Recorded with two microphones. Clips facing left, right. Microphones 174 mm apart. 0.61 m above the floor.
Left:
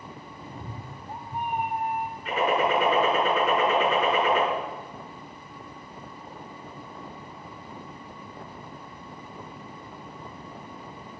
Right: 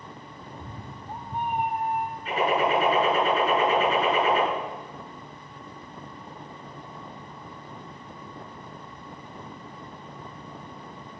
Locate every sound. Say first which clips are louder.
0.4 s a cat meowing: left 1 dB; 25° left (ahead or behind), 0.8 m; by 2.1 s 45° right (ahead or behind), 1.4 m
2.2 s a gunshot: even; 35° right (ahead or behind), 4.5 m